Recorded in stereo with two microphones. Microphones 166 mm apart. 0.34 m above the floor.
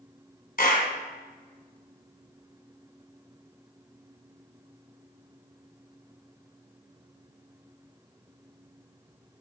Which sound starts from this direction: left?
A clap, at 0.6 s.